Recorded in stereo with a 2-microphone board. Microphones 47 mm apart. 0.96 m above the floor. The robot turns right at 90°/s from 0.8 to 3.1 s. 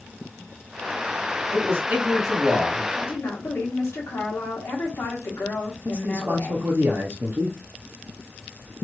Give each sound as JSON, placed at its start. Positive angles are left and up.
{"t": 1.5, "sound": "a man speaking", "azimuth_deg": -75, "distance_m": 1.7}
{"t": 3.0, "sound": "a woman speaking", "side_deg": 75, "distance_m": 1.5}
{"t": 5.8, "sound": "a man speaking", "side_deg": -50, "distance_m": 0.6}